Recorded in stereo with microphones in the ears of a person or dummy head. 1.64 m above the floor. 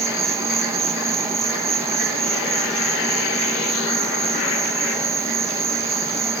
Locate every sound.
0.0 s an insect: 20° right (ahead or behind)